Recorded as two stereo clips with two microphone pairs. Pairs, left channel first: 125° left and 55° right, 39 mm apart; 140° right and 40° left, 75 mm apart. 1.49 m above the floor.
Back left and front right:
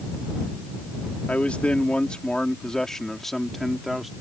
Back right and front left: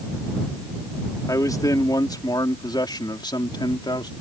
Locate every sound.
1.3 s a man speaking: straight behind; by 4.1 s 140° right